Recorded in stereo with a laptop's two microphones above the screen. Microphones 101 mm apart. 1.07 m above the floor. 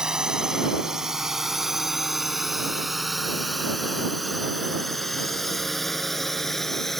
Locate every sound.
0.0 s a drone: 5° right (ahead or behind); by 7.0 s 5° left (ahead or behind)